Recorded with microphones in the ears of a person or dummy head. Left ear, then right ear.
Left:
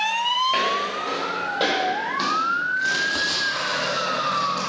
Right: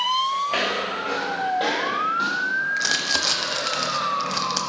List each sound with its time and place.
0.5 s footsteps: 5° right (ahead or behind), 1.3 m; by 3.1 s 30° left (ahead or behind), 4 m
2.8 s crumpling: 65° right (ahead or behind), 1.0 m